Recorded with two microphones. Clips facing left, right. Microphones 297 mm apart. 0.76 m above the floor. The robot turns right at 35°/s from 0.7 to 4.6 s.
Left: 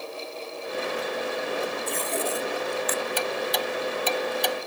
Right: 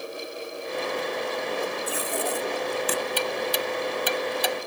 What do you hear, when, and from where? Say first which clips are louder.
1.9 s tape being pulled: even; 5° right (ahead or behind); by 3.0 s 45° right (ahead or behind)
3.2 s ticking: even; 50° right (ahead or behind); by 4.6 s centre (ahead or behind)